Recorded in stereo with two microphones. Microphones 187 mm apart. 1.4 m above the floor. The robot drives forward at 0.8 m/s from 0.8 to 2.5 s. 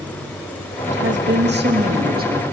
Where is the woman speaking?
75° right (ahead or behind), 1.8 m; by 2.4 s 45° right (ahead or behind), 2.5 m.